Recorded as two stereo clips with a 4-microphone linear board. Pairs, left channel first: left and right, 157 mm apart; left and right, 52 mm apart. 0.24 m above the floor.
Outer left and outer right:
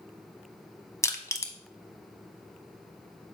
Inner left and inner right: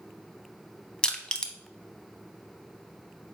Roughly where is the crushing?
Centre.